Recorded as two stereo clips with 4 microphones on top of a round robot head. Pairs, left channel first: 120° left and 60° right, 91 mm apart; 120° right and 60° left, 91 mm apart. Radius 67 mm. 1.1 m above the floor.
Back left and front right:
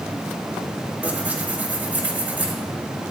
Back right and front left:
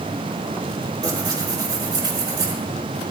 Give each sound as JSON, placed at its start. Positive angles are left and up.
{"t": 1.0, "sound": "tearing paper", "azimuth_deg": 15, "distance_m": 4.5}